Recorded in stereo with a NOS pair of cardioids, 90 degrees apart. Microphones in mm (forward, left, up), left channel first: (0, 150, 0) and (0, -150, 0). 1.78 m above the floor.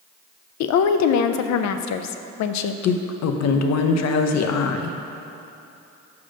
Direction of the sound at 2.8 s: 65° left.